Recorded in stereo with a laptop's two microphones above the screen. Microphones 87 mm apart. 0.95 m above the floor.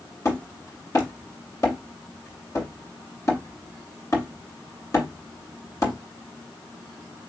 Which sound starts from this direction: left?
Hammering, at 0.2 s.